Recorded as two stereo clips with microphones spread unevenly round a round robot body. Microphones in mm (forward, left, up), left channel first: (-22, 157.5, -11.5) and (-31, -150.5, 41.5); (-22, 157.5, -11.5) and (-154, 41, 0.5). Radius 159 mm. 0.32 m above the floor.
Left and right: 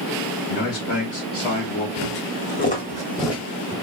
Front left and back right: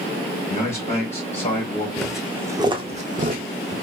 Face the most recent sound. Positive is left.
turn(degrees=-160)